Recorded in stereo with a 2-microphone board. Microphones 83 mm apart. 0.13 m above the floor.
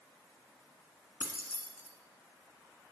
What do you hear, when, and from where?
1.2 s keys jangling: 15° right (ahead or behind), 0.7 m